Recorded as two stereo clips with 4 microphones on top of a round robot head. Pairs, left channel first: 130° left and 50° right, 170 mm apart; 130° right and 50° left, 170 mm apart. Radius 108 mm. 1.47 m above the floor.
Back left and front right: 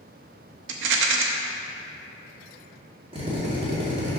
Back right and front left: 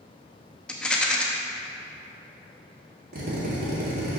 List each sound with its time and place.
0.7 s a rattle: 45° right, 0.9 m
3.1 s a drill: 15° left, 2 m